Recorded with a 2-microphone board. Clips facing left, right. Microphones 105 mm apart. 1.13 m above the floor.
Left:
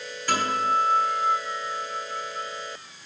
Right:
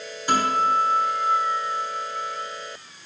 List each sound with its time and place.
0.3 s a guitar: 15° right (ahead or behind), 3 m